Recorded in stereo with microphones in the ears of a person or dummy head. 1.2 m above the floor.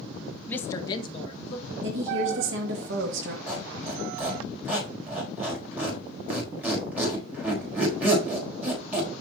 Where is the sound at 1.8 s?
65° right (ahead or behind), 2 m.